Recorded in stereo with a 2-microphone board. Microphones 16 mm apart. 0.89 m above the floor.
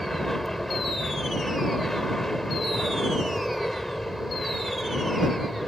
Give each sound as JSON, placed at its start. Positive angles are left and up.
{"t": 0.0, "sound": "an aircraft", "side_deg": 20}